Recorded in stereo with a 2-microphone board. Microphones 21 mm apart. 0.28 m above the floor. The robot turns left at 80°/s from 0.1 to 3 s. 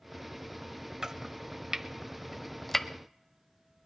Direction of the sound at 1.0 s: 30° right (ahead or behind).